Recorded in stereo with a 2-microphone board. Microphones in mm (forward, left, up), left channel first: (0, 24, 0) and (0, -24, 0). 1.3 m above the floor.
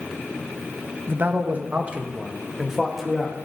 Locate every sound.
1.1 s a man speaking: 45° right (ahead or behind), 1.4 m; by 3.4 s centre (ahead or behind), 2.0 m